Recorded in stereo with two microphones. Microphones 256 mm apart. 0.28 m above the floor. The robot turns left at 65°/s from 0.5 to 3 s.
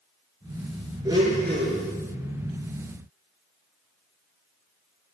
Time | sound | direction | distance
1.1 | a blender | 15° right | 2.5 m